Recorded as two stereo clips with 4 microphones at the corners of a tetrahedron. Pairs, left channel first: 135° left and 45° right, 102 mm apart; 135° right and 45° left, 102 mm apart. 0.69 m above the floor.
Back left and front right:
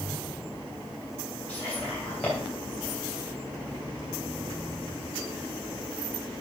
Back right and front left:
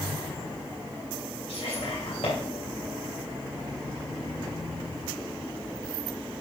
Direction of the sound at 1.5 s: 150° right.